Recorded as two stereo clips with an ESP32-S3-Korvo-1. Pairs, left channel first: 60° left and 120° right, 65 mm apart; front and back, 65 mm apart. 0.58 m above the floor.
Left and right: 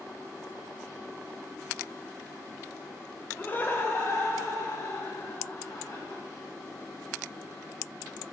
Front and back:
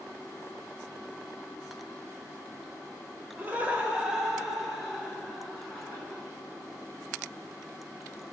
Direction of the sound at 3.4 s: 120° left.